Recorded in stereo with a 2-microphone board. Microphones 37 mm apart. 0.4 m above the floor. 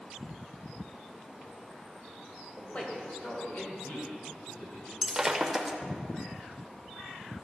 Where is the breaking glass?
10° right (ahead or behind), 0.6 m.